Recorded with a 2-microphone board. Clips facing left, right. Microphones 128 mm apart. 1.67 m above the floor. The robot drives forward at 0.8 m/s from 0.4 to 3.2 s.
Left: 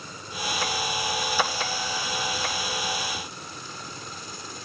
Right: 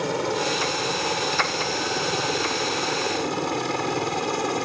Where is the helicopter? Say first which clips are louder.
Right 12 dB; 80° right; by 4.7 s 70° right (ahead or behind).